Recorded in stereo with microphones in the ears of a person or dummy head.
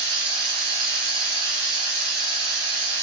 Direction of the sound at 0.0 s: 85° right.